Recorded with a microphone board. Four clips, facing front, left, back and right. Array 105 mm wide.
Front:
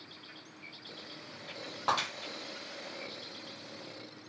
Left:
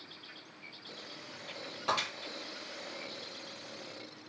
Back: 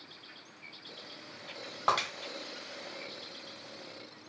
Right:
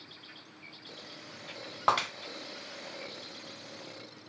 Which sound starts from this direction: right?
Breaking glass, at 1.9 s.